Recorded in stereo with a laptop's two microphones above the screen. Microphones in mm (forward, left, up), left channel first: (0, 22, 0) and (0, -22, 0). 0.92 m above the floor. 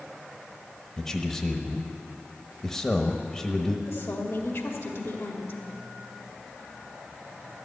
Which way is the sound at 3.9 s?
65° left (ahead or behind).